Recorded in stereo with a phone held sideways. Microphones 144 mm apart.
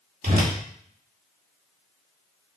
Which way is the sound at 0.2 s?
70° right (ahead or behind).